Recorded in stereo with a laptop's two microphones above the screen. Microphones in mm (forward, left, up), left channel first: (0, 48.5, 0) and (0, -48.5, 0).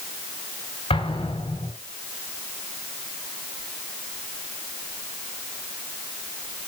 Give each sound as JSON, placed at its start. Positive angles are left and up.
{"t": 0.9, "sound": "an explosion", "side_deg": 80, "distance_m": 3.5}